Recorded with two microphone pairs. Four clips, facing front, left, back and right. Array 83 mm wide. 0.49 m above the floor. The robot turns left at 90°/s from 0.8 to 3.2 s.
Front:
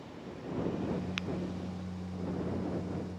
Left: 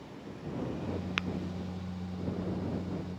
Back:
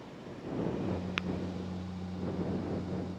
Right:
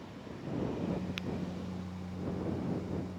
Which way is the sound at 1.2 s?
125° left.